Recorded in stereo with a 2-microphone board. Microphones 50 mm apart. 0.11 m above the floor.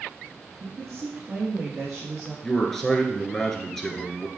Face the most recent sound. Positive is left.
turn(degrees=5)  # may be behind; listen again after turning